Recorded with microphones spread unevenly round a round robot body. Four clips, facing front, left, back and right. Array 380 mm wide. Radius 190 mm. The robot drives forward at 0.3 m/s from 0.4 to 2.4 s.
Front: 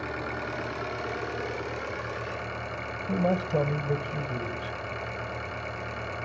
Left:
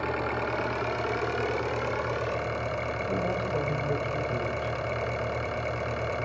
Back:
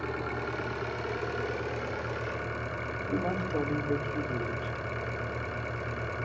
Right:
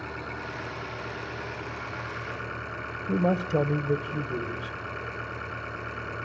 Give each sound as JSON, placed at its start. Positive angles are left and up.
{"t": 0.0, "sound": "an engine running", "azimuth_deg": 115, "distance_m": 1.4}
{"t": 3.1, "sound": "a man speaking", "azimuth_deg": -90, "distance_m": 1.6}